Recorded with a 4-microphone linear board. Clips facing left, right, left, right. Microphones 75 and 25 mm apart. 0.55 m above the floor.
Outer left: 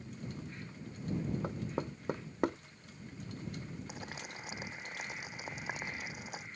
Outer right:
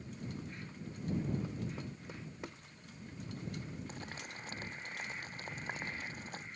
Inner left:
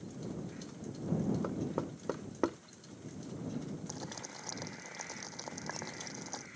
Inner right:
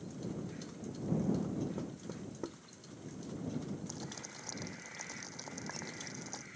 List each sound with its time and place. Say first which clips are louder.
1.4 s knocking: outer left 4 dB, inner left 2 dB; 60° left (ahead or behind)
3.9 s boiling: outer left 1 dB, inner left 2 dB; 10° left (ahead or behind)